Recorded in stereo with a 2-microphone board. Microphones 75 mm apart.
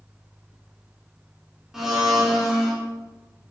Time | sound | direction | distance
1.7 | a blender | 5° right (ahead or behind) | 1.7 m